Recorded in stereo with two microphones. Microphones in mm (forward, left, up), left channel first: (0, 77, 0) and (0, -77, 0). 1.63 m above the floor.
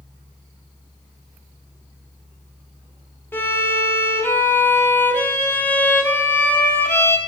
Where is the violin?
15° left (ahead or behind), 1.4 m.